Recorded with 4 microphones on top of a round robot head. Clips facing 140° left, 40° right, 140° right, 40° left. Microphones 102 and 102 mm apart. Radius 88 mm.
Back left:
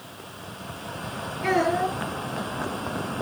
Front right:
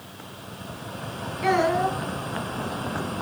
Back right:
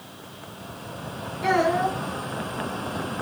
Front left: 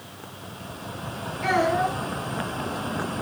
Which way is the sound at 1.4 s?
65° right.